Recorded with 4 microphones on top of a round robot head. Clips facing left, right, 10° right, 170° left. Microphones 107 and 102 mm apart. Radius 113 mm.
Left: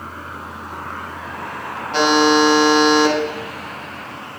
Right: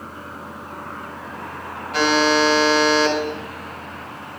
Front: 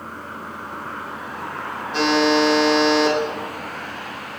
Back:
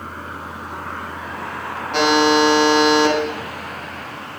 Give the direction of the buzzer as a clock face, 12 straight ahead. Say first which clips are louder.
Left 3 dB, back 2 dB; 7 o'clock.